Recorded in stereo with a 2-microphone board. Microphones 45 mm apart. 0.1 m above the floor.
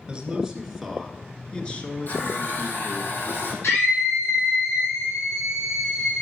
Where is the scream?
65° left (ahead or behind), 4.5 m.